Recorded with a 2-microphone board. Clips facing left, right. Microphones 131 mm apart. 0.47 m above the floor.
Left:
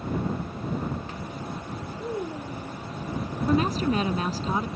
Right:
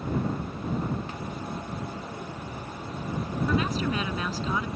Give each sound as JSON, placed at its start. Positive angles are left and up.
{"t": 2.0, "sound": "a child speaking", "side_deg": 85}
{"t": 3.5, "sound": "a woman speaking", "side_deg": 40}